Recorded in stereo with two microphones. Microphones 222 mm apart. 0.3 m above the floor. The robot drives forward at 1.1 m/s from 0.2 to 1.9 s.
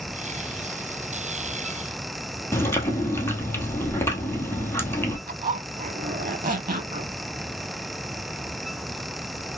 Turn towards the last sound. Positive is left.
turn(degrees=-40)  # may be behind; listen again after turning